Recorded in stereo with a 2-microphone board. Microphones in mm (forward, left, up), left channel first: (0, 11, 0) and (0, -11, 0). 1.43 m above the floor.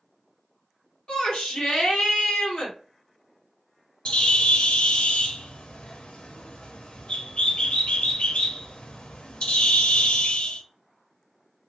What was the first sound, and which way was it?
A shout, 55° left (ahead or behind).